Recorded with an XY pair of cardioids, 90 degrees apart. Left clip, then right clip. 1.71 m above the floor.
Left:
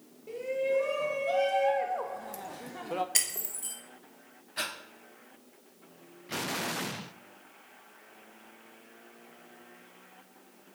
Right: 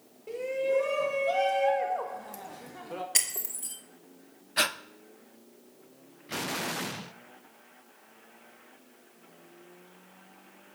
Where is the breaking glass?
10° right, 3 m.